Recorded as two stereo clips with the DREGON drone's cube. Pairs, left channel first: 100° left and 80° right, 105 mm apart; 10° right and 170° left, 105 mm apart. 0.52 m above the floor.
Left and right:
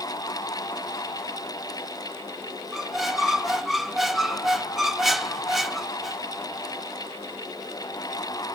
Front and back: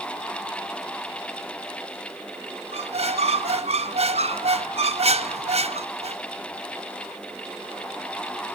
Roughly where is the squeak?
Behind.